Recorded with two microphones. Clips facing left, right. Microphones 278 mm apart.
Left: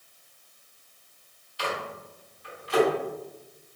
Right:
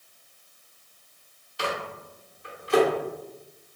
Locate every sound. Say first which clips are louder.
1.6 s a microwave: right 1 dB; 55° right (ahead or behind), 1.1 m